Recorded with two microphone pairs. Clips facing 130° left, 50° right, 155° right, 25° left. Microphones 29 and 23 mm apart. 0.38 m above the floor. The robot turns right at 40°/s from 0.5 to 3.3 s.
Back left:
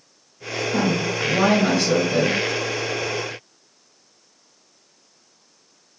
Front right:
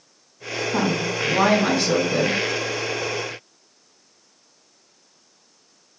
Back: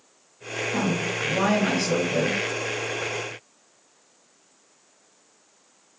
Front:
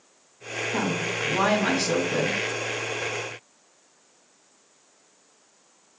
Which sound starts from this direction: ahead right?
A woman speaking, at 0.7 s.